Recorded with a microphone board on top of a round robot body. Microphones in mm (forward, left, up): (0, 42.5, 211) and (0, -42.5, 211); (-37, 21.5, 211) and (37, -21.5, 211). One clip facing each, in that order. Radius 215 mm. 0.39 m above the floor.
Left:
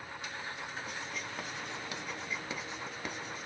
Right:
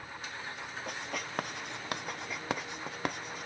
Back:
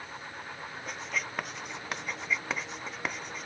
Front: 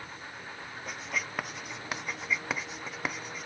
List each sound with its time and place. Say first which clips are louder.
0.9 s writing: right 2 dB, even; 115° right, 0.6 m